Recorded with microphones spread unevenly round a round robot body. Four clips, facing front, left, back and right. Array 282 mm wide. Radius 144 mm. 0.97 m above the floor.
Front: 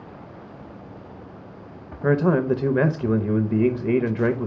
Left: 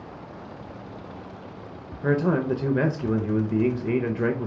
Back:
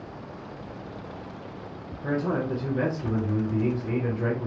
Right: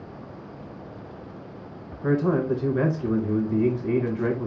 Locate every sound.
2.0 s a man speaking: 25° left, 0.6 m